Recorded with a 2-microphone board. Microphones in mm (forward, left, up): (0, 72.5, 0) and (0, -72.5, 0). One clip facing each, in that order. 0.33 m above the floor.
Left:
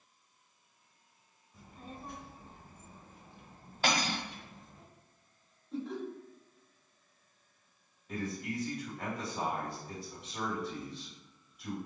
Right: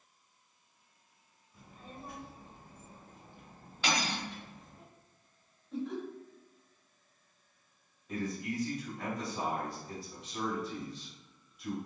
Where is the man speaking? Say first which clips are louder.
Right 1 dB; centre (ahead or behind), 1.6 m.